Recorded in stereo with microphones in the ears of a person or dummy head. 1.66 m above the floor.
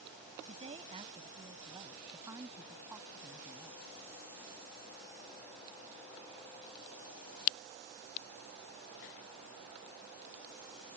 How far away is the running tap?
I don't hear a running tap.